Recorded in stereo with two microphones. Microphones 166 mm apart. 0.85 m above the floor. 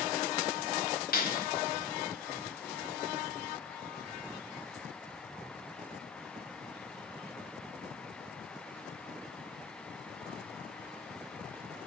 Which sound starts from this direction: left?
A clap, at 1.1 s.